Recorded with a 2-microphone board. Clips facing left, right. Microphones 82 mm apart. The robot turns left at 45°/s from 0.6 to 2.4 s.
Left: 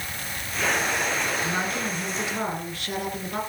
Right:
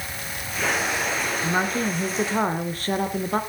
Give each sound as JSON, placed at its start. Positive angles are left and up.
{"t": 1.4, "sound": "a woman speaking", "azimuth_deg": -45, "distance_m": 2.0}